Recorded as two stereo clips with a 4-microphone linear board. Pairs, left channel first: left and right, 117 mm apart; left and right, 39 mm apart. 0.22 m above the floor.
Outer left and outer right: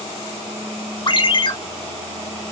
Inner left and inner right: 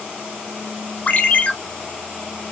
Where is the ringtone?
40° left (ahead or behind), 0.7 m.